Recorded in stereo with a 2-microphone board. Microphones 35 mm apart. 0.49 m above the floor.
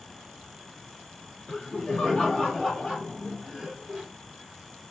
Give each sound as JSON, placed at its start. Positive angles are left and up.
{"t": 1.5, "sound": "laughter", "side_deg": 40, "distance_m": 1.5}